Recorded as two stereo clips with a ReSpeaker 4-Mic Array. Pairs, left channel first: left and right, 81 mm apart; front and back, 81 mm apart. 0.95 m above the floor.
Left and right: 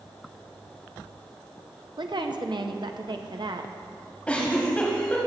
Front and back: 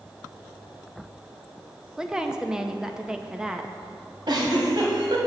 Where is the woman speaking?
100° right, 0.7 m.